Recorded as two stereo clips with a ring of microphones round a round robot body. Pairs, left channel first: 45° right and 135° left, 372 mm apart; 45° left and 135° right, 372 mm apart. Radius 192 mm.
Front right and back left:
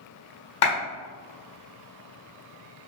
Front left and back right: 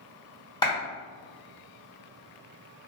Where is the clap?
35° right, 1.5 m.